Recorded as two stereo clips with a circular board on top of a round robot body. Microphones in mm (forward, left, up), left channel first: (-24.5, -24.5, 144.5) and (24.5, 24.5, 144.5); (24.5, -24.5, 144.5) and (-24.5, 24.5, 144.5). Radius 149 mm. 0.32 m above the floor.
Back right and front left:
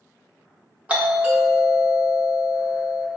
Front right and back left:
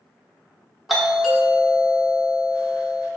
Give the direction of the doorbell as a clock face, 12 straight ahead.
10 o'clock.